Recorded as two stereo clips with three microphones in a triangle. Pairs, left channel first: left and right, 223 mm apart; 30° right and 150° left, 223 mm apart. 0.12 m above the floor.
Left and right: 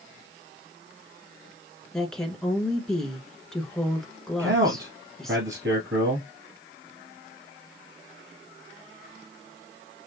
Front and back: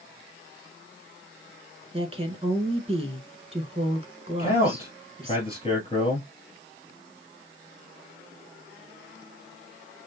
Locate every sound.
1.9 s a woman speaking: 175° left, 1.4 m
4.4 s a man speaking: 90° right, 2.5 m